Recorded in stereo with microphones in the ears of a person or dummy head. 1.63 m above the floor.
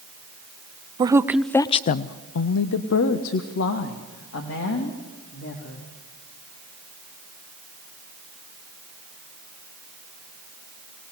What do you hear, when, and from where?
1.0 s a woman speaking: 25° right (ahead or behind), 0.7 m; by 5.9 s 70° left (ahead or behind), 3.5 m